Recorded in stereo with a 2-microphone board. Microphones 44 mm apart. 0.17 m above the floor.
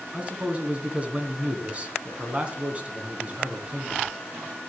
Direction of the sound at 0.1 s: 30° right (ahead or behind).